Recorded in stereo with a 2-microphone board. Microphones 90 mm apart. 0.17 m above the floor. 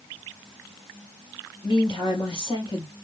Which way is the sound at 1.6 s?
65° left (ahead or behind).